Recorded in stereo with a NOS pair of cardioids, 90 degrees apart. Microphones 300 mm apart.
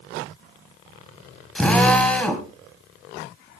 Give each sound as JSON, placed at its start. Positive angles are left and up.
{"t": 1.6, "sound": "a drill", "azimuth_deg": 5, "distance_m": 3.5}